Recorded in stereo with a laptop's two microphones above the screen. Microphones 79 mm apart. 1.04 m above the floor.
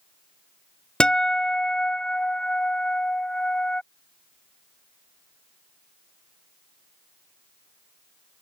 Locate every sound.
1.0 s a guitar: 10° left (ahead or behind)